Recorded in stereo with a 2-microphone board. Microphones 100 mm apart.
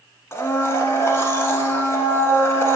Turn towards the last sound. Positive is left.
turn(degrees=25)  # may be behind; listen again after turning